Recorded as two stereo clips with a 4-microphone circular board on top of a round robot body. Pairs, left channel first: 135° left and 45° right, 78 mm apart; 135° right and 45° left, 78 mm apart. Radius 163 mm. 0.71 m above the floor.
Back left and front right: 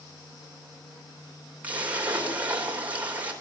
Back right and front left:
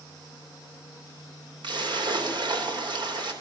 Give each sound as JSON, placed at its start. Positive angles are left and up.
{"t": 1.6, "sound": "a splash", "azimuth_deg": 25, "distance_m": 4.0}